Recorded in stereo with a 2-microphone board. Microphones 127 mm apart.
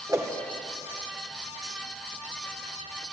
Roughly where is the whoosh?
Right.